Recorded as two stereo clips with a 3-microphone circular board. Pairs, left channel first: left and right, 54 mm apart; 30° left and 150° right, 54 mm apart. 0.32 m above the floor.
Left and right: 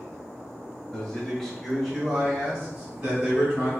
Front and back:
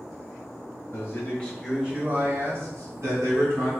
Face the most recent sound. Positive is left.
turn(degrees=-170)